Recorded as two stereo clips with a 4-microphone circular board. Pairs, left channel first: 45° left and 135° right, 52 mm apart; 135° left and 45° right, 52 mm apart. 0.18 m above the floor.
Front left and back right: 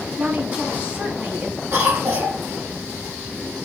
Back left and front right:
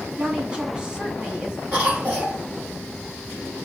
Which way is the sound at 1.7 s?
110° right.